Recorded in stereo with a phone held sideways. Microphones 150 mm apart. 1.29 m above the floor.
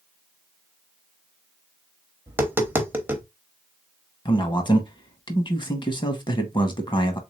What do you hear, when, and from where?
2.3 s tapping: 15° right (ahead or behind), 0.9 m
4.2 s a man speaking: 30° left (ahead or behind), 1.0 m